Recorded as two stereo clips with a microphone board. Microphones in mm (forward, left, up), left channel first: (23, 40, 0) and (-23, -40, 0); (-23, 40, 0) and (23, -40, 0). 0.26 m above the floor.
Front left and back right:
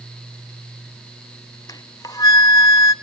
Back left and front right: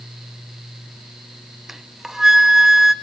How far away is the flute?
About 1.0 m.